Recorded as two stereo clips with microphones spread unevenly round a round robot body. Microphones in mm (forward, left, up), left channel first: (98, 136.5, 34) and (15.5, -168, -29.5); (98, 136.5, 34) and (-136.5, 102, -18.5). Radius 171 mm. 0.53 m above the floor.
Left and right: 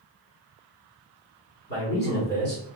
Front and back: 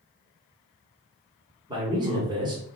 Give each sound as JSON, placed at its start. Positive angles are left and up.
{"t": 1.7, "sound": "a man speaking", "azimuth_deg": 140, "distance_m": 1.4}